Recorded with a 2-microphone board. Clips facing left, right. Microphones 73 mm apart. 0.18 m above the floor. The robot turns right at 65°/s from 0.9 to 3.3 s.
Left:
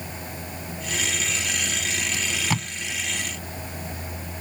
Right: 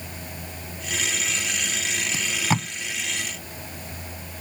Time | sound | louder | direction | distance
2.1 | tape being pulled | right 5 dB | 30° right (ahead or behind) | ?